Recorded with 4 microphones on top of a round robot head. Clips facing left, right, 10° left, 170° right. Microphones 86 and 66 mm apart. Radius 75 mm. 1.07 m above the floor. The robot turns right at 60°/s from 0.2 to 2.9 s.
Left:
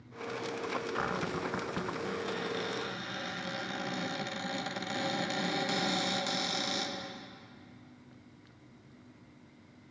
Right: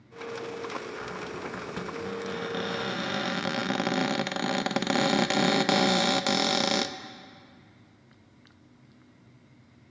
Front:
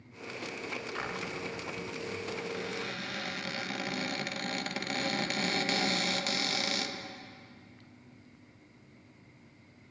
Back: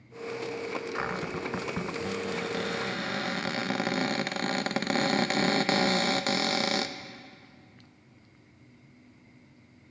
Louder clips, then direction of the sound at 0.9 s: Left 2 dB, back 5 dB; 125° left.